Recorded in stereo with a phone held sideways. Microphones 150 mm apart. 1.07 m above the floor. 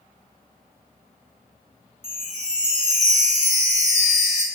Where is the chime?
50° right (ahead or behind), 1.1 m.